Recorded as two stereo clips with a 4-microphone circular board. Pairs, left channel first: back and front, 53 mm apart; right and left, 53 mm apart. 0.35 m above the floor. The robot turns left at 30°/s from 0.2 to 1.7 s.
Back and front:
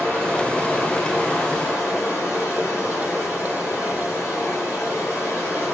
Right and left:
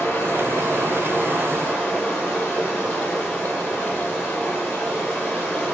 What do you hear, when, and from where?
0.0 s running water: 110° right, 1.6 m; by 5.8 s 155° right, 1.6 m